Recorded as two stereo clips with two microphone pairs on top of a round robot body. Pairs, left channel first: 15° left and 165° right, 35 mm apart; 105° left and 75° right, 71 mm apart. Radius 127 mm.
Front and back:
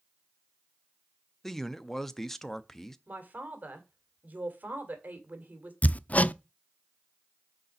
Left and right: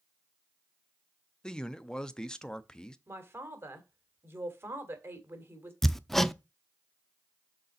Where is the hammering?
15° left, 0.6 m.